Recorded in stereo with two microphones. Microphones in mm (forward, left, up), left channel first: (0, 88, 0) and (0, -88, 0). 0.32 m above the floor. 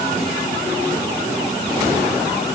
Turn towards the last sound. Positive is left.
No sound to turn to.